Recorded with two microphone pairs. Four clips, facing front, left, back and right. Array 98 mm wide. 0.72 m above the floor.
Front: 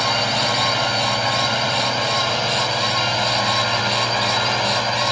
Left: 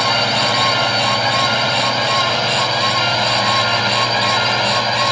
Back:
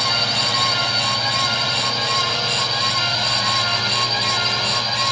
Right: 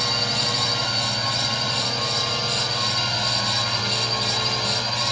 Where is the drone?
65° left; by 5.1 s 60° left.